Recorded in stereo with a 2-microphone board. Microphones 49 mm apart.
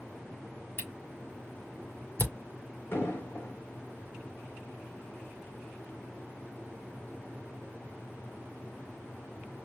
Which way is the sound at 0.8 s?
50° left (ahead or behind).